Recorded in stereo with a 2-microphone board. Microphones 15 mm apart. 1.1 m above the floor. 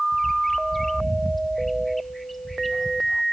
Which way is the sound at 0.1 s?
10° left (ahead or behind).